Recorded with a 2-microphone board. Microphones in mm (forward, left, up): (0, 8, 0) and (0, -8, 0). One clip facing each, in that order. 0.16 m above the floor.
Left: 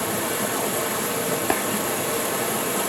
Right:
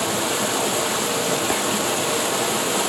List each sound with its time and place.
0.0 s running water: 45° right (ahead or behind), 0.8 m
1.5 s tapping: 25° left (ahead or behind), 1.1 m